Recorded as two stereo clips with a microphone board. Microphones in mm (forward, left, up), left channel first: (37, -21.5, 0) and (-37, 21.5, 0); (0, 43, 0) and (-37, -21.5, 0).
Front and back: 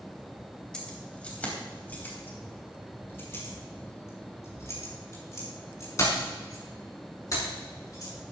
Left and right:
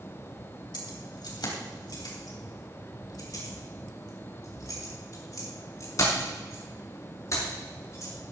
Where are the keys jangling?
50° left, 3 m; by 8.1 s 15° left, 7.5 m.